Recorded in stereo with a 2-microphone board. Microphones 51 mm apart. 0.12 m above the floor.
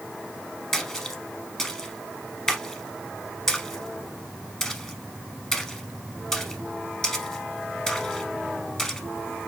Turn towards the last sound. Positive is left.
turn(degrees=15)  # may be behind; listen again after turning